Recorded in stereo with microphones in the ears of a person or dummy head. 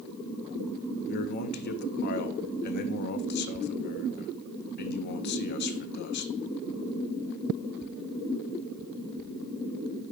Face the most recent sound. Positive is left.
turn(degrees=55)  # may be behind; listen again after turning